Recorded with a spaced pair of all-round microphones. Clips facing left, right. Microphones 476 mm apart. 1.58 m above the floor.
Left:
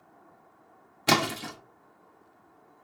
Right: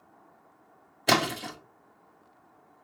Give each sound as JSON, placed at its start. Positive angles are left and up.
{"t": 1.1, "sound": "a splash", "side_deg": 25, "distance_m": 0.5}